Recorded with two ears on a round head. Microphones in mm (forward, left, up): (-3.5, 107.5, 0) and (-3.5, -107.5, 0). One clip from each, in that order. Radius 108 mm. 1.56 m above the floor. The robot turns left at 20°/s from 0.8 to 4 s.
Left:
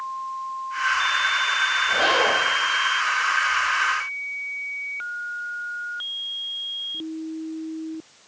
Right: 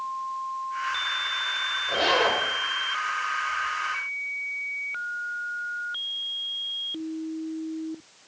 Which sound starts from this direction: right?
A zipper, at 1.9 s.